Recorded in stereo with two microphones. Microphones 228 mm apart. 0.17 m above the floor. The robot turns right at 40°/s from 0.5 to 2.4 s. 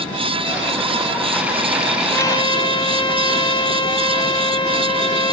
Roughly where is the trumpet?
Centre.